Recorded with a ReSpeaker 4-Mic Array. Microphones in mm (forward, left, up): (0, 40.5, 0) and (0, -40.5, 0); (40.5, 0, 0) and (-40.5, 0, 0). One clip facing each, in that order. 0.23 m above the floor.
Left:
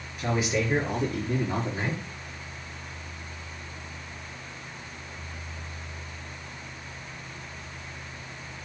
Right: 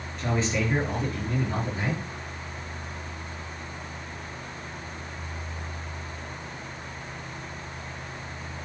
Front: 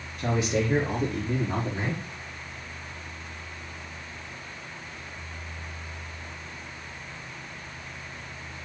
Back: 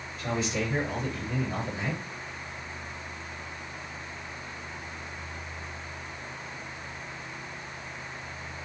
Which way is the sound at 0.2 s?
10° left.